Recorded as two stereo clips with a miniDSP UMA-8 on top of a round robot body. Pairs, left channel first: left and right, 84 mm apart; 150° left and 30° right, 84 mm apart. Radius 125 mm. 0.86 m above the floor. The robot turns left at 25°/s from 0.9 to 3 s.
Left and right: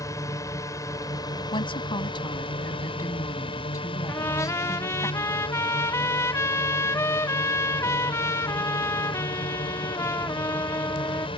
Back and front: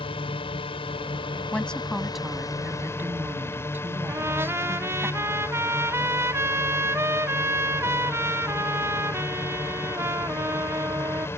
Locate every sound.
0.0 s a drone: 140° left; by 11.4 s 90° left
1.5 s a woman speaking: 75° left; by 5.1 s 35° left
4.1 s a trumpet: 30° left